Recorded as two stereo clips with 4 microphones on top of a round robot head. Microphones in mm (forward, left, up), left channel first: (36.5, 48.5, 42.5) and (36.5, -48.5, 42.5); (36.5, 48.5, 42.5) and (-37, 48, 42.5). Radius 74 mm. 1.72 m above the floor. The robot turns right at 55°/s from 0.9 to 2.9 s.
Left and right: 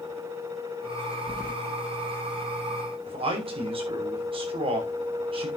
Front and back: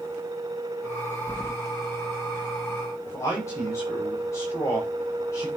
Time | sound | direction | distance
1.3 | keys jangling | 75° right | 1.2 m
3.1 | a man speaking | 65° right | 6 m